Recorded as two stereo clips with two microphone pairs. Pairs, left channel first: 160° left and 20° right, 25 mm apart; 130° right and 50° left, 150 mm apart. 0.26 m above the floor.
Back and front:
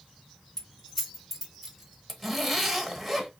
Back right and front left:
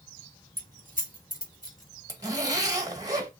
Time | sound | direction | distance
0.6 | keys jangling | 135° right | 1.7 m
2.1 | a zipper | 75° left | 1.0 m